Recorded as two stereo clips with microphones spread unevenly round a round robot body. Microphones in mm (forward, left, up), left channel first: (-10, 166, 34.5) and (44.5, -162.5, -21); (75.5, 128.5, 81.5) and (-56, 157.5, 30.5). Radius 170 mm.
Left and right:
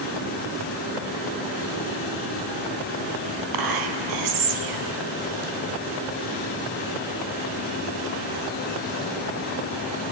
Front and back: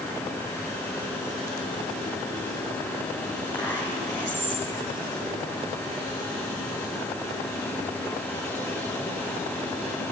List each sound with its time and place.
3.5 s whispering: 95° right, 2.5 m